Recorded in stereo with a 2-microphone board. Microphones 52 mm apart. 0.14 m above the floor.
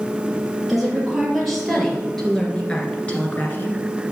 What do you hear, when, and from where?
0.7 s a woman speaking: 5° right (ahead or behind), 4 m; by 3.8 s 40° left (ahead or behind), 1.9 m